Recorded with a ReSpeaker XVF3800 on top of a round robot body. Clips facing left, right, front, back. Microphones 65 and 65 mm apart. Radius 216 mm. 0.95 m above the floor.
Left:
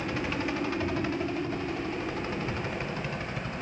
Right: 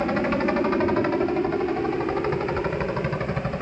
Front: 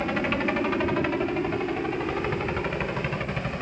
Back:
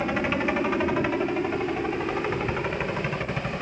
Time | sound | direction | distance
0.0 | a helicopter | 95° right | ?